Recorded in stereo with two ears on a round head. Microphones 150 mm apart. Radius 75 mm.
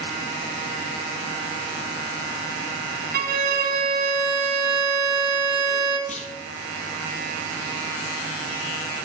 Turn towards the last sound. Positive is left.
turn(degrees=40)  # may be behind; listen again after turning